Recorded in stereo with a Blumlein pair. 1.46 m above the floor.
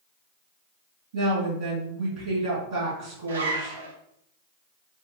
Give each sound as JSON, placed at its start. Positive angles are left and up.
{"t": 1.1, "sound": "a woman speaking", "azimuth_deg": -50, "distance_m": 2.5}
{"t": 3.3, "sound": "a zipper", "azimuth_deg": -65, "distance_m": 0.9}